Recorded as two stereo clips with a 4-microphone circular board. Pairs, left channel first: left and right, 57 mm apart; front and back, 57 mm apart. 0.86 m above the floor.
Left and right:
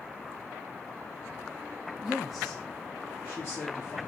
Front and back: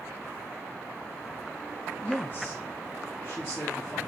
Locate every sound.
2.0 s a woman speaking: 45° right, 0.5 m; by 4.0 s 50° left, 1.6 m